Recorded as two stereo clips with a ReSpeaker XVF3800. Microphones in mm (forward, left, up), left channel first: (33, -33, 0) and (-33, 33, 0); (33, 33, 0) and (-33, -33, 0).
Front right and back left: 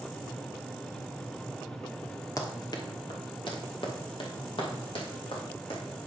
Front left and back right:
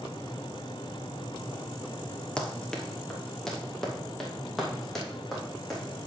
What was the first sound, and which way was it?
Running footsteps, 30° right.